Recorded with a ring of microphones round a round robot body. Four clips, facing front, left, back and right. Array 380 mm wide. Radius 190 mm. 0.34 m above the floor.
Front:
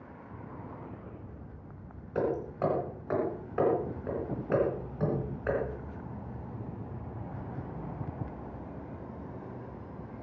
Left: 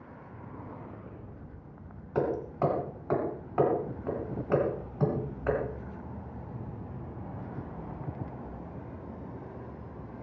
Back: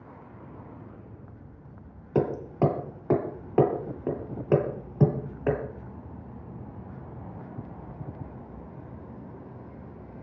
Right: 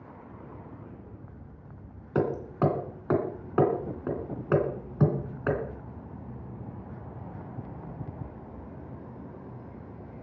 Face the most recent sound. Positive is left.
turn(degrees=-150)